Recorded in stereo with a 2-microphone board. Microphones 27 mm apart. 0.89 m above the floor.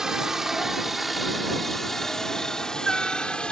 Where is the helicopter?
20° right (ahead or behind); by 3.5 s 35° left (ahead or behind).